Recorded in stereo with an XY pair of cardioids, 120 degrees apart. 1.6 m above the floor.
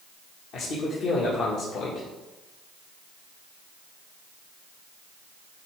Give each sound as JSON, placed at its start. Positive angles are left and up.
{"t": 0.5, "sound": "a man speaking", "azimuth_deg": 65, "distance_m": 1.7}